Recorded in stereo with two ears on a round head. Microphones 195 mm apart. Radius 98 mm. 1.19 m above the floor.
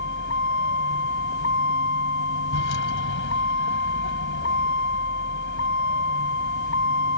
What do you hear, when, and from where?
0.0 s a vehicle: 60° left (ahead or behind)